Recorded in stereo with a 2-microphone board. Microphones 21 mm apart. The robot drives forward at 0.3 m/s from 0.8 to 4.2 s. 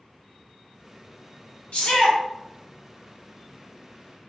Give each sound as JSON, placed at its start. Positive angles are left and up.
{"t": 1.7, "sound": "a shout", "side_deg": 65, "distance_m": 1.4}